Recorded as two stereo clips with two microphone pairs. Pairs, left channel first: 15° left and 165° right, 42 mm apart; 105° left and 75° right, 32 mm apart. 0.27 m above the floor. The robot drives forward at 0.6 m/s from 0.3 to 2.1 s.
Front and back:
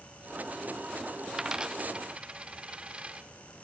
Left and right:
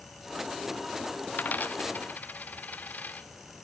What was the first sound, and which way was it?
A dropped coin, 115° left.